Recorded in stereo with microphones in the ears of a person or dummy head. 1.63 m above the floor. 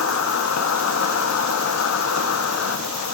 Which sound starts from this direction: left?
An insect, at 0.0 s.